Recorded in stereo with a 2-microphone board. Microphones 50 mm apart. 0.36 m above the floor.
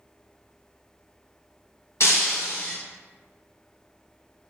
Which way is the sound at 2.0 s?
75° left (ahead or behind).